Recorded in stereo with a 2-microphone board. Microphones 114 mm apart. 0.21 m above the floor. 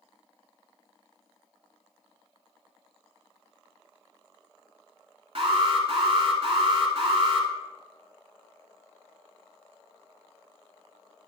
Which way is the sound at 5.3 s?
50° right (ahead or behind).